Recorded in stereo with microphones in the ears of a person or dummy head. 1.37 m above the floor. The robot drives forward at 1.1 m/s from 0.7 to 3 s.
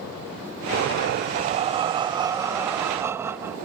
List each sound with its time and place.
0.7 s breathing: 50° right (ahead or behind); by 3.7 s 10° right (ahead or behind)